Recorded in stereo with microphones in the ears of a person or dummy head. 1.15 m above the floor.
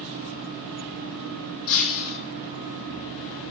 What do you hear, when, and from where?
1.7 s breaking glass: 80° left, 7.5 m